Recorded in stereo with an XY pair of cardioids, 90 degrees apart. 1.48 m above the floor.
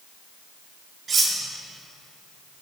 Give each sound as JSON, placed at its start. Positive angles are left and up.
{"t": 1.1, "sound": "cutlery clinking", "azimuth_deg": -45, "distance_m": 2.0}